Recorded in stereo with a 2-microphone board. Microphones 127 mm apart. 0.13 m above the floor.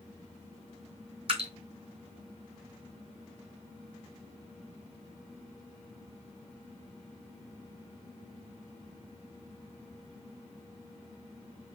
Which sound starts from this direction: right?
Dripping, at 1.3 s.